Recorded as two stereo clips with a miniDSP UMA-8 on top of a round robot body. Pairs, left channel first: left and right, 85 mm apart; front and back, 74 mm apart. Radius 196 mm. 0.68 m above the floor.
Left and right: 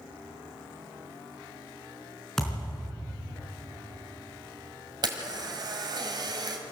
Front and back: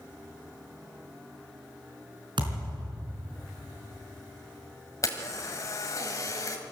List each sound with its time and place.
2.4 s a thud: 175° left, 4 m
5.0 s a camera shutter: 50° right, 1.8 m